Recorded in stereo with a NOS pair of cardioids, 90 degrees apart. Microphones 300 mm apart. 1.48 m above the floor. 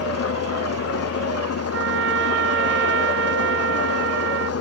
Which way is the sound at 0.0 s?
55° left.